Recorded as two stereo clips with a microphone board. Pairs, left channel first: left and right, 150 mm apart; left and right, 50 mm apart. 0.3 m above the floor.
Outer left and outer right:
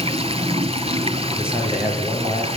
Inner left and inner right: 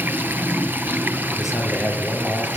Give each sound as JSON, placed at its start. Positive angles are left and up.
{"t": 0.0, "sound": "running water", "side_deg": -40, "distance_m": 1.8}
{"t": 1.3, "sound": "a man speaking", "side_deg": -5, "distance_m": 8.0}